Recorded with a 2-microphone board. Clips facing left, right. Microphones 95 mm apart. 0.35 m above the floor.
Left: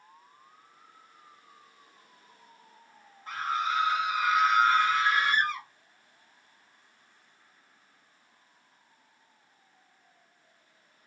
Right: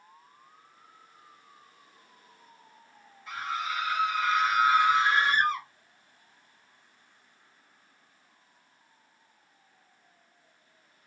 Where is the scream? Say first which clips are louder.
Left 3 dB; 40° left (ahead or behind), 1.1 m; by 5.7 s 40° right (ahead or behind), 1.1 m.